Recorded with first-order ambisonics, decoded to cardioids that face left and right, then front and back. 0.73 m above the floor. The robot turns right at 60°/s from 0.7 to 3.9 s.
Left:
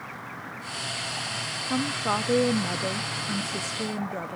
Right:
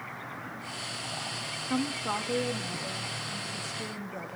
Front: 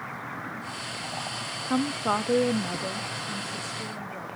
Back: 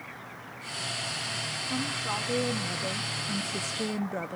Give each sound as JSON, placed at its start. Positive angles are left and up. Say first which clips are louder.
{"t": 1.6, "sound": "a woman speaking", "louder": "left 5 dB, front 8 dB", "azimuth_deg": 5, "distance_m": 0.6}